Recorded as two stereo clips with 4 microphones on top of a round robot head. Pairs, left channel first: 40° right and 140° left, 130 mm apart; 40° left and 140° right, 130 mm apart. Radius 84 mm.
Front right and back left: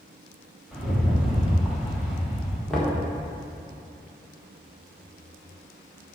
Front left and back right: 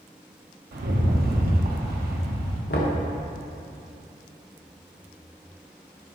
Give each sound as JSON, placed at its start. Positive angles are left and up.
{"t": 0.7, "sound": "a rattle", "azimuth_deg": -135, "distance_m": 1.4}
{"t": 2.7, "sound": "knocking", "azimuth_deg": 45, "distance_m": 1.3}